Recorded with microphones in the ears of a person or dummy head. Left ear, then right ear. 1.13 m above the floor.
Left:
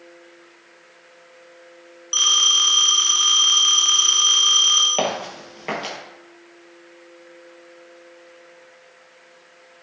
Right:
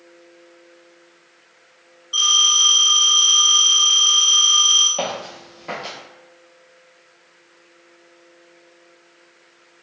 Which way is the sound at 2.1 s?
35° left (ahead or behind).